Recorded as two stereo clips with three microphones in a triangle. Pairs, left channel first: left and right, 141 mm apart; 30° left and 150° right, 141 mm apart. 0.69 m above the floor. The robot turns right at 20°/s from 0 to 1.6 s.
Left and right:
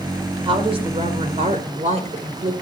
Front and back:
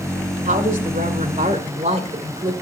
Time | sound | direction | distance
0.5 | a woman speaking | 140° right | 2.5 m